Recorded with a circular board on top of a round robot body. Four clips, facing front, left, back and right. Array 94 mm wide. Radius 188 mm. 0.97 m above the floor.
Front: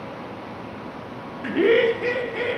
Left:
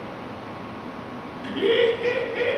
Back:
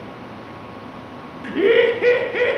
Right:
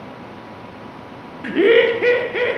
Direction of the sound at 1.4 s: 70° right.